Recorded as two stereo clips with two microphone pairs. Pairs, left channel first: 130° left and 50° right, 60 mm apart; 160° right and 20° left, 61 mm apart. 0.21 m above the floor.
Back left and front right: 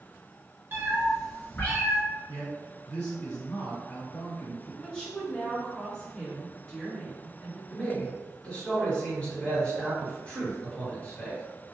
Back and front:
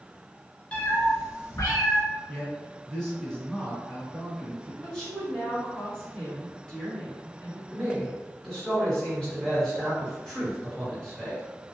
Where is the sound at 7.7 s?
145° left, 1.5 m.